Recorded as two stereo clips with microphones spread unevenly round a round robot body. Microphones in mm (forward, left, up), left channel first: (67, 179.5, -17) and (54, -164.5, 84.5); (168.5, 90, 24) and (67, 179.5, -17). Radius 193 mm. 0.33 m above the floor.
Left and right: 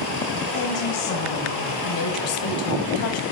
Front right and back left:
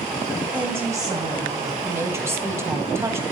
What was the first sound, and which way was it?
A woman speaking, 70° left.